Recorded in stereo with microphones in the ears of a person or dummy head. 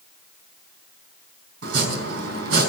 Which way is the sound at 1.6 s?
75° right (ahead or behind).